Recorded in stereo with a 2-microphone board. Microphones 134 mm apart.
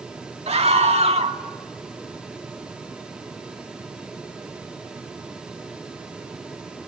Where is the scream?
50° right (ahead or behind), 1.9 m.